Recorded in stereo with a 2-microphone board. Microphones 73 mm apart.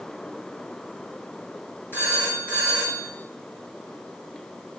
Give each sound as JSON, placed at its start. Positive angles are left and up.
{"t": 1.9, "sound": "a phone ringing", "side_deg": 30, "distance_m": 5.0}